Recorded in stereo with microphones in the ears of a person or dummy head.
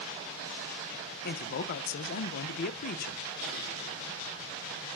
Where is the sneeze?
No sneeze in this recording.